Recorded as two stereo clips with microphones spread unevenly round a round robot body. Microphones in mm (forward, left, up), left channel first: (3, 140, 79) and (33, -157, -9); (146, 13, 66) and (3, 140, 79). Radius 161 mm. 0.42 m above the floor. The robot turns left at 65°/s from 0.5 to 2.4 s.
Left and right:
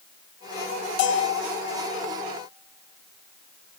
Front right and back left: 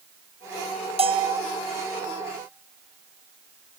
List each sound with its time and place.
1.0 s a bell: 100° left, 1.3 m; by 1.4 s 75° left, 1.3 m